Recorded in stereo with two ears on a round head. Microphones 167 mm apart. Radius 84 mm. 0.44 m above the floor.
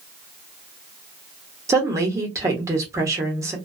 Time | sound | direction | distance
1.7 | a woman speaking | 15° right (ahead or behind) | 0.9 m